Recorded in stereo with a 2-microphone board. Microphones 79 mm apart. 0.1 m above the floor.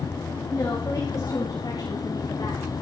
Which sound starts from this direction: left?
A woman speaking, at 0.5 s.